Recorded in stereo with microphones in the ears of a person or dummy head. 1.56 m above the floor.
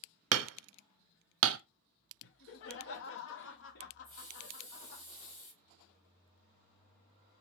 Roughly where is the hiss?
Left.